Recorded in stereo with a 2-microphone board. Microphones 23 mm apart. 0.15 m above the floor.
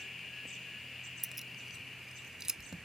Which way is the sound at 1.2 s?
10° right (ahead or behind).